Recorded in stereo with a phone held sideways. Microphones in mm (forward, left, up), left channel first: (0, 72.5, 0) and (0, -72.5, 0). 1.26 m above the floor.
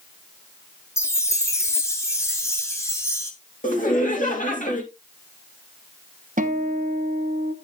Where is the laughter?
65° left (ahead or behind), 2.5 m.